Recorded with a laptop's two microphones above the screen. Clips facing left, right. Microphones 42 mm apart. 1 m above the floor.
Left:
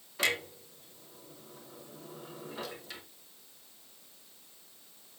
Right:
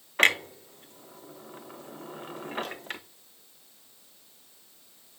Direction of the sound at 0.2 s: 55° right (ahead or behind).